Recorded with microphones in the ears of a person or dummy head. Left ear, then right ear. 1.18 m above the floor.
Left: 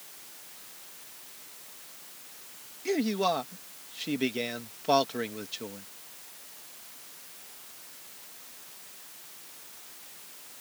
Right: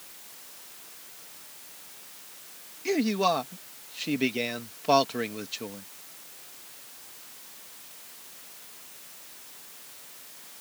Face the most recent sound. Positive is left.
turn(degrees=-15)  # may be behind; listen again after turning